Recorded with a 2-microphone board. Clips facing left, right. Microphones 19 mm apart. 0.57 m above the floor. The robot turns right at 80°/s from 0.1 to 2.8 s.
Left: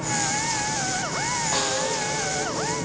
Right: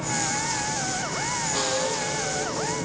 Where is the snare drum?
70° left, 3.5 m; by 2.0 s 105° left, 3.5 m.